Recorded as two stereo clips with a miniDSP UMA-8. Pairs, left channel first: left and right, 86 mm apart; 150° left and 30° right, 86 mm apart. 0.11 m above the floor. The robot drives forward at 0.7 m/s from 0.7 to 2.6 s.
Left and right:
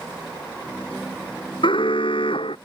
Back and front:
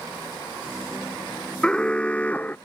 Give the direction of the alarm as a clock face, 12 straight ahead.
10 o'clock.